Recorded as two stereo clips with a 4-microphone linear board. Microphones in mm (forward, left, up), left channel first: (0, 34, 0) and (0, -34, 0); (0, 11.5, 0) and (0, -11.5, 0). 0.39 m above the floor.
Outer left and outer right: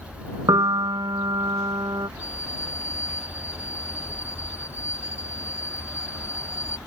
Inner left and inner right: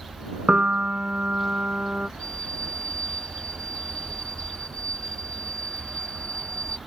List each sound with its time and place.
0.5 s a piano: 85° right
2.2 s a violin: 45° left (ahead or behind)